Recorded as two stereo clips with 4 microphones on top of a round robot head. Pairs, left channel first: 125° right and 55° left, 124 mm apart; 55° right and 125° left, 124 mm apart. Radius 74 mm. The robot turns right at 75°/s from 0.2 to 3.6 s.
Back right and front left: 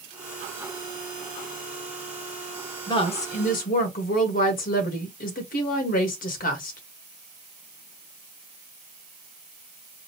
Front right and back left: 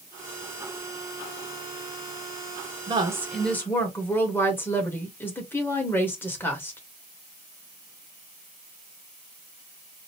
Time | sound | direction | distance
2.9 | a woman speaking | 175° left | 1.3 m